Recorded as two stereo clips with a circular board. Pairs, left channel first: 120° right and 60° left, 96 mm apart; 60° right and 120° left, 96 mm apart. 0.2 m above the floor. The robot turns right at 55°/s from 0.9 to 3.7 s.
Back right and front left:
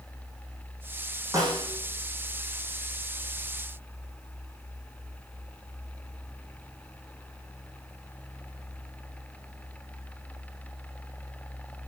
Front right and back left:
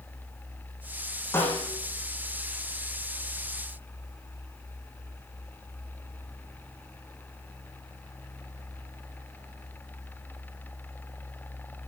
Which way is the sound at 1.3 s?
5° left.